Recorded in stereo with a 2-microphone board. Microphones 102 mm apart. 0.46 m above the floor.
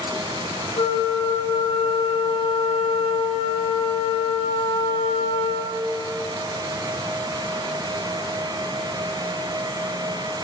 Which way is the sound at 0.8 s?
70° left (ahead or behind).